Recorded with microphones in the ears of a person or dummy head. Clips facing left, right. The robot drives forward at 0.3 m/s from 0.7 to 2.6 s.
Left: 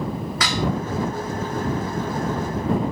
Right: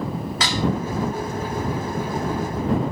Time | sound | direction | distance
0.4 | dishes clattering | 25° right (ahead or behind) | 1.1 m